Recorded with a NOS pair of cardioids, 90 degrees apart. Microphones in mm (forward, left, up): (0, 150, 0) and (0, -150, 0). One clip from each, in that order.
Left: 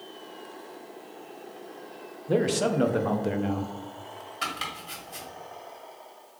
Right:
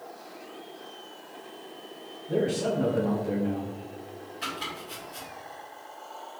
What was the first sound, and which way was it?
A man speaking, 60° left.